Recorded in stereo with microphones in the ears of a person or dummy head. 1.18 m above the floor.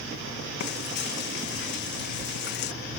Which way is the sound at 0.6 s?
55° left (ahead or behind).